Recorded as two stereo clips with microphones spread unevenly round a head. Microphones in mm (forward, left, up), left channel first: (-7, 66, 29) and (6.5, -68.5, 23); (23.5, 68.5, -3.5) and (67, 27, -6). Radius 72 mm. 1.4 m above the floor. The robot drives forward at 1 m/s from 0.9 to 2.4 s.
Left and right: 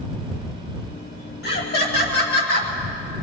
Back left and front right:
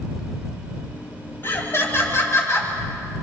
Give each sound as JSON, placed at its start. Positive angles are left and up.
{"t": 1.4, "sound": "laughter", "azimuth_deg": 80, "distance_m": 6.5}